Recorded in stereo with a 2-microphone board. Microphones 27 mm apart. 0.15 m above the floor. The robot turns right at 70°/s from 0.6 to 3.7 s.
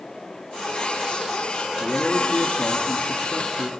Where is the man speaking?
Straight ahead, 1.8 m; by 3.7 s 135° left, 1.8 m.